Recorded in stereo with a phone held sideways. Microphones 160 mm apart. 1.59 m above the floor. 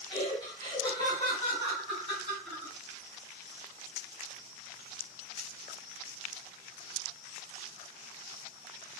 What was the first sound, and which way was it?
Laughter, 35° left (ahead or behind).